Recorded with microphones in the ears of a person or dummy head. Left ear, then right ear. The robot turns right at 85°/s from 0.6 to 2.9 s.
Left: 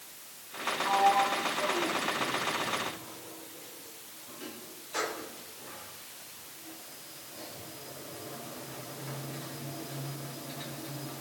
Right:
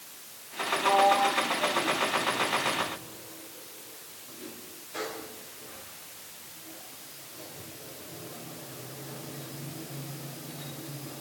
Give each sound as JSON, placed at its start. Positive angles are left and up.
{"t": 0.8, "sound": "a sliding door", "side_deg": -30, "distance_m": 2.5}